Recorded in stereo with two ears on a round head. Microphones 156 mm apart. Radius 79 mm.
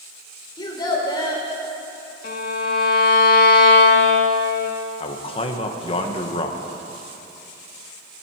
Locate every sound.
0.6 s a child speaking: 25° left (ahead or behind), 2.5 m
2.2 s a violin: 50° left (ahead or behind), 1.8 m
5.0 s a man speaking: 35° left (ahead or behind), 1.4 m